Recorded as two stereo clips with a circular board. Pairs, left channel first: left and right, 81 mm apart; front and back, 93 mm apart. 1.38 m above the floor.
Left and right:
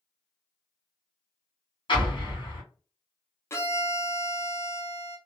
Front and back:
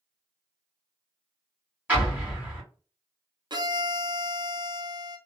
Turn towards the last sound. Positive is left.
turn(degrees=145)